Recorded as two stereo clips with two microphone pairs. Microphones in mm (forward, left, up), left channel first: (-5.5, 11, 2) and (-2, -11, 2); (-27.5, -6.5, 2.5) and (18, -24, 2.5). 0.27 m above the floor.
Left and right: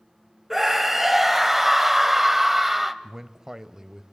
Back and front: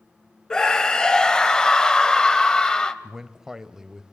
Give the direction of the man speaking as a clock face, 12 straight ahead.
3 o'clock.